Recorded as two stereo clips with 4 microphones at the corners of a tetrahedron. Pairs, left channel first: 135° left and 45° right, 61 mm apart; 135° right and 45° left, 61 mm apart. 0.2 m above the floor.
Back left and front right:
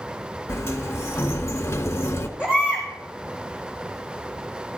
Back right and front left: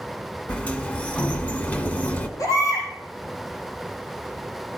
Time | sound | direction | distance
0.5 | a sliding door | 165° left | 1.0 m
2.4 | a baby crying | 120° right | 4 m